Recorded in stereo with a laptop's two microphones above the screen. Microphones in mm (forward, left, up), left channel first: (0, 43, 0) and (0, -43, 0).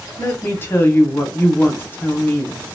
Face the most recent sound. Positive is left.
turn(degrees=25)  # may be behind; listen again after turning